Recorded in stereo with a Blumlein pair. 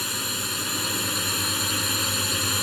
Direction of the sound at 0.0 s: Straight ahead.